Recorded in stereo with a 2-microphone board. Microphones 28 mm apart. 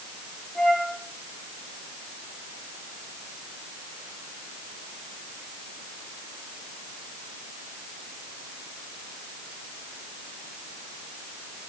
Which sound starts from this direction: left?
A flute, at 0.6 s.